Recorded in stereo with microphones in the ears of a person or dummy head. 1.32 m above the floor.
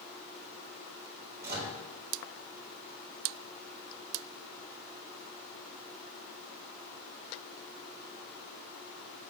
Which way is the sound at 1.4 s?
55° right (ahead or behind).